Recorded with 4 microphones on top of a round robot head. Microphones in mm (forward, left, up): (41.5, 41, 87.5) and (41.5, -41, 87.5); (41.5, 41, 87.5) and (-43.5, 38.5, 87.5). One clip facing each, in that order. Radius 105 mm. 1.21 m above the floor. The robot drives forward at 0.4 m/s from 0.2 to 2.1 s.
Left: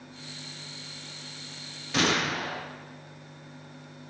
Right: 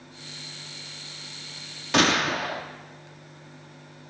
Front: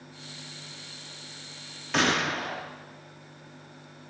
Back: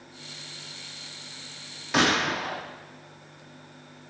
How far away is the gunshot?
About 3 m.